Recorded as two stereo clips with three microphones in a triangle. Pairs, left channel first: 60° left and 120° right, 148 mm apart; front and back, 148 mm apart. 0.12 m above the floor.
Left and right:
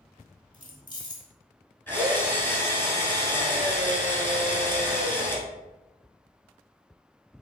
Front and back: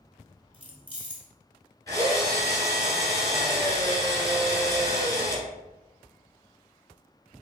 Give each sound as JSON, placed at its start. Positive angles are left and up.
{"t": 0.5, "sound": "keys jangling", "azimuth_deg": 25, "distance_m": 1.1}
{"t": 1.9, "sound": "a drill", "azimuth_deg": 10, "distance_m": 1.3}